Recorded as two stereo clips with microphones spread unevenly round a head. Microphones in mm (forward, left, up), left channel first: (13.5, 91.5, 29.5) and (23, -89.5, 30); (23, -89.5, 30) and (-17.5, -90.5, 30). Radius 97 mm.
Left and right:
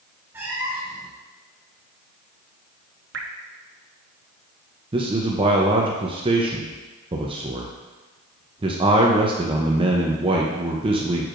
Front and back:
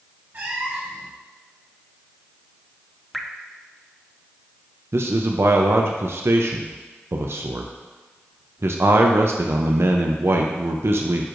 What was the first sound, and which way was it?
A cat meowing, 165° right.